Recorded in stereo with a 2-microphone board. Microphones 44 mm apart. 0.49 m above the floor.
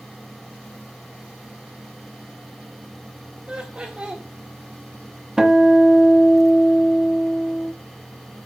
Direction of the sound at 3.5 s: 25° right (ahead or behind).